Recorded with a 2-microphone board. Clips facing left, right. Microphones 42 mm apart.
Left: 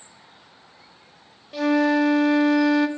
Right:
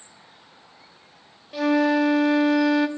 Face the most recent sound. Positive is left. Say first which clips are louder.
# even
turn(degrees=0)  # may be behind; listen again after turning